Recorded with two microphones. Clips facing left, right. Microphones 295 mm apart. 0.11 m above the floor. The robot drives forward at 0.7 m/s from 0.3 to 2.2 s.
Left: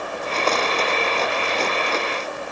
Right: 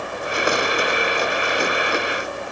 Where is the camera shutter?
I don't hear a camera shutter.